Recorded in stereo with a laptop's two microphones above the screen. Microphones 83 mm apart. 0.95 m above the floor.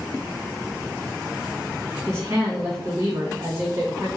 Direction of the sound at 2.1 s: 30° right (ahead or behind).